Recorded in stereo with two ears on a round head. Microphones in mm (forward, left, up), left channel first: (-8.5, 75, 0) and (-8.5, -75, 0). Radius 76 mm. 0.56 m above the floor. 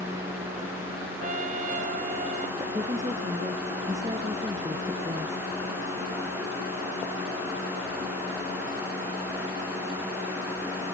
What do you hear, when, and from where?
1.2 s a trumpet: 45° right (ahead or behind)
2.6 s a woman speaking: 20° right (ahead or behind)